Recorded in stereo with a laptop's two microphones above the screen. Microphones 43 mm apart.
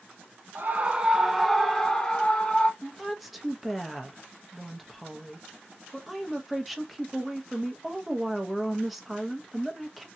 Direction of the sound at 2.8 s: Centre (ahead or behind).